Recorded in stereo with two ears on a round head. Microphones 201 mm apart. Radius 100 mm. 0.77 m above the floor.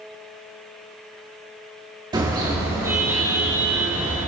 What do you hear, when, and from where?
2.1 s a car horn: 20° right (ahead or behind), 5.5 m; by 4.2 s 5° right (ahead or behind), 5.5 m